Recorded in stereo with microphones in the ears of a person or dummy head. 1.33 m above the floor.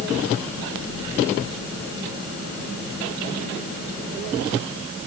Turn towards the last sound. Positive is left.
No sound to turn to.